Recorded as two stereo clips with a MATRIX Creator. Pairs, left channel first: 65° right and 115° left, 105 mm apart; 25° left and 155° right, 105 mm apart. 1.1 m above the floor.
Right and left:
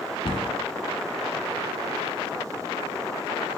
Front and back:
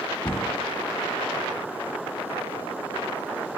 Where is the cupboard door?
30° right, 1.0 m.